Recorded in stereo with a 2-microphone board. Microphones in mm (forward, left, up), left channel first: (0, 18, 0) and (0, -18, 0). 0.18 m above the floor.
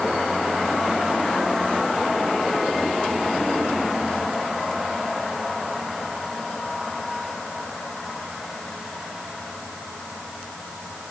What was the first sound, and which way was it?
Only background noise.